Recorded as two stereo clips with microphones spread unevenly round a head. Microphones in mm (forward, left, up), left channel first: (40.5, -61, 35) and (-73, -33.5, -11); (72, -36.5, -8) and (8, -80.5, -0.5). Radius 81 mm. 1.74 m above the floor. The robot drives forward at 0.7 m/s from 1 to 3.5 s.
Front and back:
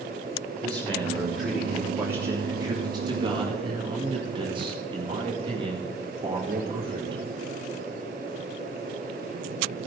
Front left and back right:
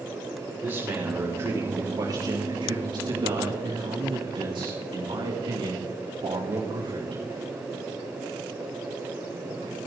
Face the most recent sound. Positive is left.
turn(degrees=-140)